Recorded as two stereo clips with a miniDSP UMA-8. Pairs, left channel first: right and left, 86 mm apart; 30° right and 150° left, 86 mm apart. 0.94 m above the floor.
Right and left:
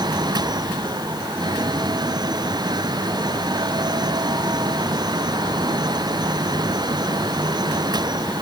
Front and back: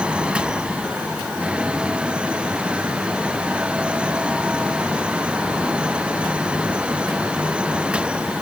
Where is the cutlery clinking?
I don't hear cutlery clinking.